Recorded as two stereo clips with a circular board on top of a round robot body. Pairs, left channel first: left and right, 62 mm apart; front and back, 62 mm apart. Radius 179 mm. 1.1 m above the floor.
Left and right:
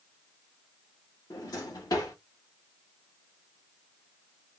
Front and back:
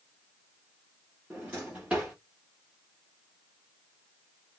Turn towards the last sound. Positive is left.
turn(degrees=110)